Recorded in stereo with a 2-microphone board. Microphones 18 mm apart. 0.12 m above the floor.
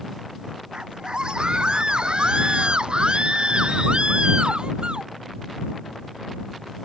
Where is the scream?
55° right (ahead or behind); by 5.1 s 65° right (ahead or behind).